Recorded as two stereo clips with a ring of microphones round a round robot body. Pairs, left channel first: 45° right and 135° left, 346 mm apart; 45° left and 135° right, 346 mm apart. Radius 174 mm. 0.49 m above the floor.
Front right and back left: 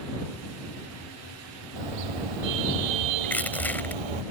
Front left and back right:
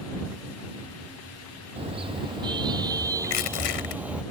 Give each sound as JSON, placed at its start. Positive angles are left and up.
{"t": 1.8, "sound": "a car horn", "azimuth_deg": 150}
{"t": 3.2, "sound": "crushing", "azimuth_deg": 40}